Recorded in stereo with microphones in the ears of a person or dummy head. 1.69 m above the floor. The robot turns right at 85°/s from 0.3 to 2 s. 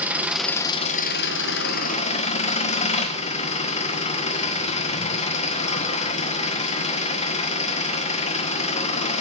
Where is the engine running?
10° right, 1.4 m; by 9.2 s 135° left, 1.4 m.